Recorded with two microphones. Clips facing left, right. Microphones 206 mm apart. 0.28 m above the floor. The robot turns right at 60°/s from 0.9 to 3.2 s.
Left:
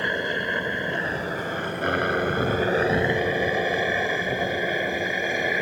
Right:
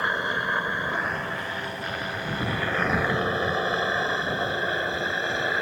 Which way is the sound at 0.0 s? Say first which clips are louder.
Left 4 dB; 20° left (ahead or behind).